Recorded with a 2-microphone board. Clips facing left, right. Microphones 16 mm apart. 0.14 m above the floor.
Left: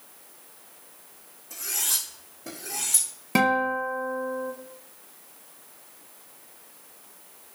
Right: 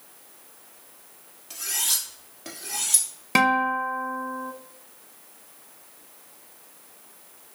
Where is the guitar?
25° right (ahead or behind), 0.6 m.